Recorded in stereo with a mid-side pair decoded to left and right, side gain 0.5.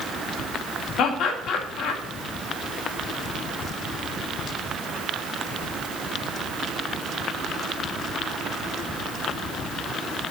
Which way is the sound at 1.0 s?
65° left.